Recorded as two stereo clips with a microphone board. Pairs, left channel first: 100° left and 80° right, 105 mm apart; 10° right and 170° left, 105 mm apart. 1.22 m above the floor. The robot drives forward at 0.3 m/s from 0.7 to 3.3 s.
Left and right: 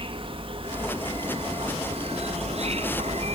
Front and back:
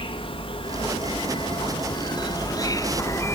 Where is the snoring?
I don't hear snoring.